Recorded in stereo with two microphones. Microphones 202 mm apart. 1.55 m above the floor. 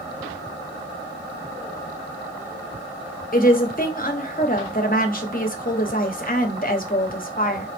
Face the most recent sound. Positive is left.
turn(degrees=45)  # may be behind; listen again after turning